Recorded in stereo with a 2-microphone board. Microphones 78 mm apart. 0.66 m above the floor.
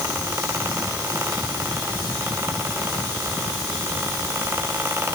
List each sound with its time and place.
Only background noise.